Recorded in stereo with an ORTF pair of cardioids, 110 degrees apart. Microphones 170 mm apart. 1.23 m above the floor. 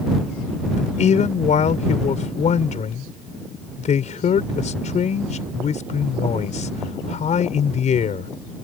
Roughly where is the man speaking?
Ahead left.